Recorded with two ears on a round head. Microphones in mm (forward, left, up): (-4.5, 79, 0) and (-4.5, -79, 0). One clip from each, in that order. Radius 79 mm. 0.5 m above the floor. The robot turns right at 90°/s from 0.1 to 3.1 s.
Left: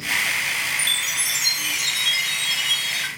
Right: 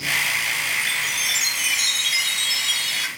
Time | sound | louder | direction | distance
0.8 | a chime | even | 125° left | 7 m